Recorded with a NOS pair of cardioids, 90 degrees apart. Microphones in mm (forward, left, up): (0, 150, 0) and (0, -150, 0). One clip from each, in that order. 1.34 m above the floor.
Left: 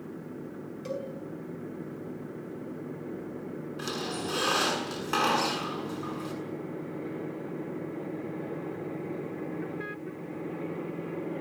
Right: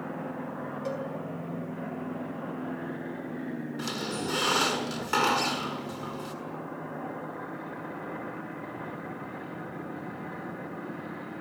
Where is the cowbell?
15° left, 6 m.